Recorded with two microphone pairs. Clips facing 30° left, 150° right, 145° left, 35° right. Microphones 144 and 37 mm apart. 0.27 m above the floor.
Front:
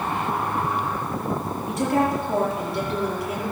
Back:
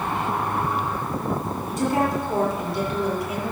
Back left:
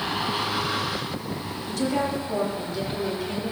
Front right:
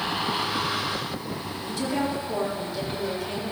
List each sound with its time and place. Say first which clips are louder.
1.7 s a woman speaking: front 1 dB, back left 2 dB; 45° left, 7.5 m; by 3.5 s 60° left, 7.5 m